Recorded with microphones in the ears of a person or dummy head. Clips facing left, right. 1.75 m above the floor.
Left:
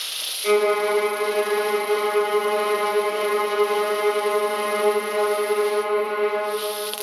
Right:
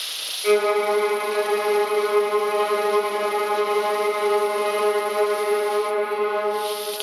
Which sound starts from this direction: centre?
A violin, at 0.4 s.